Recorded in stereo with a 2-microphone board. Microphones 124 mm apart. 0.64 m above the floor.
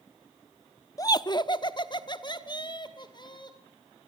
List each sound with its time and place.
1.0 s laughter: 25° left (ahead or behind), 0.8 m; by 3.6 s 35° left (ahead or behind), 3.5 m